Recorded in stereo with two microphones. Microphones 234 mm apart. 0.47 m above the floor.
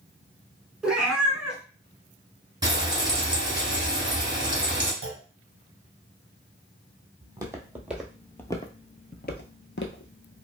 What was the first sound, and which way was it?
A cat meowing, 5° right (ahead or behind).